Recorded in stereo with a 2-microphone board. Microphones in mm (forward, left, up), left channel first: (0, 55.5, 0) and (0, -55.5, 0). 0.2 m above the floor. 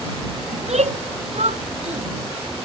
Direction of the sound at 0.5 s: 80° right.